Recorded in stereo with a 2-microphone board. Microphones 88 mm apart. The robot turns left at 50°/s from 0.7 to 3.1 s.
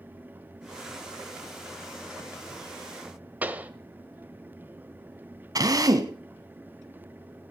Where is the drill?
45° right (ahead or behind), 1.3 m.